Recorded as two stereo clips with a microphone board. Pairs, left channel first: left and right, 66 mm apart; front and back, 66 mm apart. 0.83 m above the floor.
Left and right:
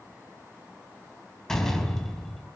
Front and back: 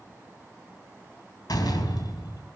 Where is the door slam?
5° left, 4 m.